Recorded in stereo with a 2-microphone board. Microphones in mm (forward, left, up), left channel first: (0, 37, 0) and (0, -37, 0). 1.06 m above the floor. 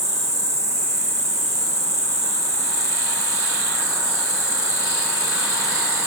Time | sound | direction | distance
0.0 | an insect | 45° right (ahead or behind) | 3.5 m